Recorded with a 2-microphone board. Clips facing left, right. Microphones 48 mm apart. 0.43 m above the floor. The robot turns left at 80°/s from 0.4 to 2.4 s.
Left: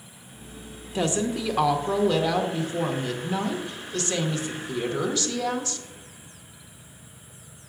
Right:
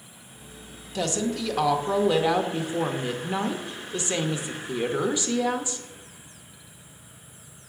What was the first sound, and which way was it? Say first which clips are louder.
A woman speaking: left 2 dB; 25° left (ahead or behind).